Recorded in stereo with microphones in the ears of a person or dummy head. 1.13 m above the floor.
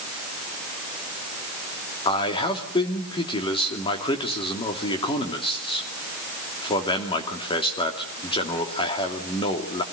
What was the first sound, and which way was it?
A man speaking, 20° left (ahead or behind).